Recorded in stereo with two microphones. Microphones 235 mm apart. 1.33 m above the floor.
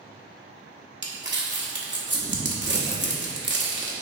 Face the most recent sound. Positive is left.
turn(degrees=-50)  # may be behind; listen again after turning